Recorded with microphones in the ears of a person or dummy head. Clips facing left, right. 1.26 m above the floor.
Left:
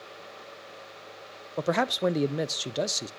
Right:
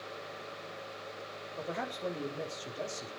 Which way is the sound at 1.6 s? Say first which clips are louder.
Left 12 dB; 75° left (ahead or behind).